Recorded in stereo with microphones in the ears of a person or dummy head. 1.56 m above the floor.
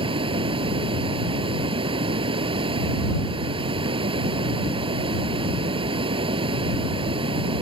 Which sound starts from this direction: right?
Running water, at 0.0 s.